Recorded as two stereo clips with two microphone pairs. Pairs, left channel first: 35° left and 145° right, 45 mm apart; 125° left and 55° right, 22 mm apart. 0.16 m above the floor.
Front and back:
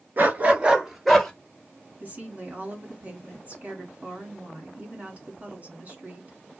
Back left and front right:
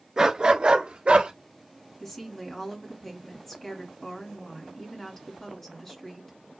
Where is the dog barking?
115° right, 0.9 m; by 1.3 s 55° right, 1.3 m.